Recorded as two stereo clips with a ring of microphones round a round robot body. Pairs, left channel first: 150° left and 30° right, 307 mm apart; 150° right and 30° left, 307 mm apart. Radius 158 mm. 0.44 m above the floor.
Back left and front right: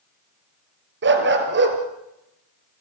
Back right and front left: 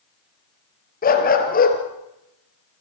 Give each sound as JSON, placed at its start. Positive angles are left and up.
{"t": 1.0, "sound": "a dog barking", "azimuth_deg": -85, "distance_m": 3.0}